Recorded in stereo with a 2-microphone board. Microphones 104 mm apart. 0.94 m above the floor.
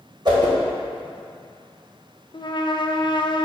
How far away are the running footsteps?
I don't hear running footsteps.